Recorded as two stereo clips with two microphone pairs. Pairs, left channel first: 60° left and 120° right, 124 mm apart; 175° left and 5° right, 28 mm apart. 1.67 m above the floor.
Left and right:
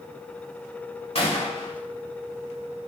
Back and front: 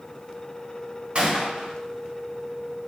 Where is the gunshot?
35° left, 2.5 m.